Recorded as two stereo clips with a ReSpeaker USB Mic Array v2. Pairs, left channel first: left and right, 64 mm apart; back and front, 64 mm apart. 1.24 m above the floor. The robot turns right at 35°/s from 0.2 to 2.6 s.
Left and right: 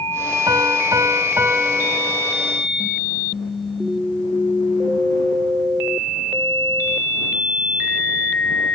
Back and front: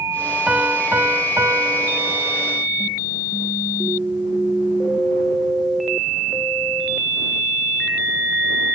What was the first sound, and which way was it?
A piano, 75° right.